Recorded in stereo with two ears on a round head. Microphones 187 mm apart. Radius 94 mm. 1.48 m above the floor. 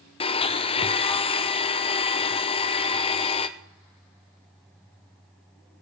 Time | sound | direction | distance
0.2 | a blender | 25° left (ahead or behind) | 0.7 m